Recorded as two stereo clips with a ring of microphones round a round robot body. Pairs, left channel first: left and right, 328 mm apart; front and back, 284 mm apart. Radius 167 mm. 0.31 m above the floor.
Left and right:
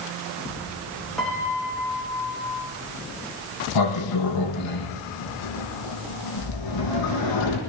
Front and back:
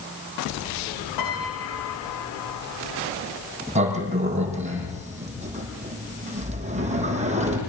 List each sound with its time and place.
1.2 s a piano: straight ahead, 9.5 m
3.8 s a sliding door: 115° left, 6.5 m